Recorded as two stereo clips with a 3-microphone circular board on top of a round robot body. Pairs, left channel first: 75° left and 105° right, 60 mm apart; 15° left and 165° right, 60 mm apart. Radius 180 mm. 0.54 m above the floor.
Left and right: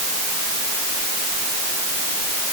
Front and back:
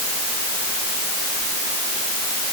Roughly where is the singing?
No singing in this recording.